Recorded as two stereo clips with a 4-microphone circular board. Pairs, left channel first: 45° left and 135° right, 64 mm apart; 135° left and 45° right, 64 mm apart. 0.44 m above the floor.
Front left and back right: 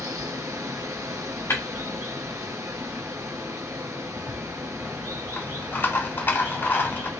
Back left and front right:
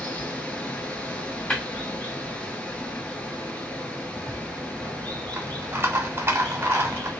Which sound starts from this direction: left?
Tapping, at 1.5 s.